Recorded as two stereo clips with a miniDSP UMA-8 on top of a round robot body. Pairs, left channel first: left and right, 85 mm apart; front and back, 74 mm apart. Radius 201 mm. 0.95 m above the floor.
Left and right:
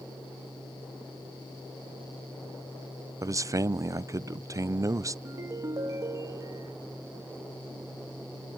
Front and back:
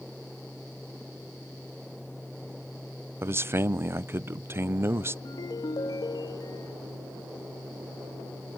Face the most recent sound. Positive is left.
turn(degrees=-35)